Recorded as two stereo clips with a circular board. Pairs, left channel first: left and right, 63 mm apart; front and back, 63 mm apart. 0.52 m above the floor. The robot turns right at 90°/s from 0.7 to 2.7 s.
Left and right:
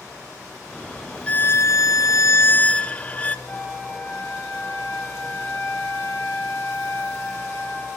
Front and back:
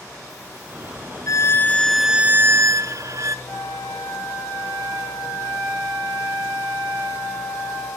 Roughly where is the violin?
Ahead left.